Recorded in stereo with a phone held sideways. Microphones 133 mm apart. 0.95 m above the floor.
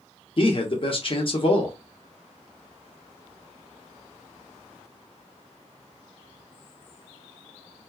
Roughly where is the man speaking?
Left.